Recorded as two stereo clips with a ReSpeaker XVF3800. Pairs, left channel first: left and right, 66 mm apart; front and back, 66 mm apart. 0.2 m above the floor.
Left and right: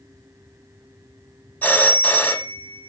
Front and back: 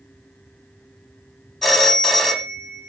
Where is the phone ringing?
85° left, 0.6 m.